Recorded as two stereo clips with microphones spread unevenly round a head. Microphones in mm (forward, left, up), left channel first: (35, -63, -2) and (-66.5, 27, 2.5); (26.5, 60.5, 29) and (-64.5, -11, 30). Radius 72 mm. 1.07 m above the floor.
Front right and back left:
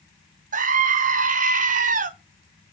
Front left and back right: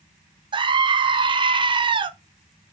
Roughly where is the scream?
Behind.